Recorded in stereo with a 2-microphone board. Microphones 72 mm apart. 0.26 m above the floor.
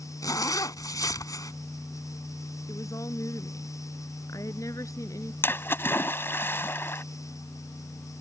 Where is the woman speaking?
50° left (ahead or behind).